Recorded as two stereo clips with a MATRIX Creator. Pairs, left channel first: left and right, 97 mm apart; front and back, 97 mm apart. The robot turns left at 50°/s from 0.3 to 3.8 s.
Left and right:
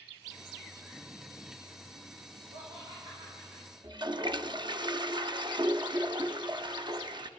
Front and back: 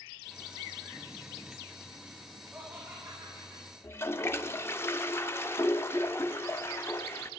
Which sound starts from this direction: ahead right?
A toilet flushing, at 3.8 s.